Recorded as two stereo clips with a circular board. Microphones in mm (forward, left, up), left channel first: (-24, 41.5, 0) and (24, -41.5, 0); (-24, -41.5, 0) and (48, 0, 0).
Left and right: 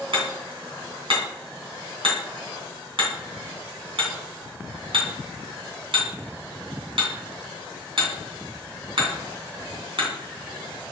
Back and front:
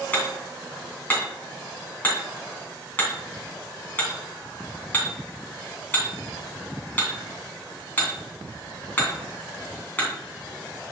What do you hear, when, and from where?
0.1 s hammering: 85° right, 2.5 m